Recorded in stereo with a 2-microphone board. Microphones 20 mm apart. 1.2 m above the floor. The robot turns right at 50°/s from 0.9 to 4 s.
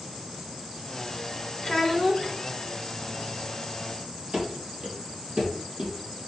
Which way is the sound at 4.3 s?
50° right (ahead or behind).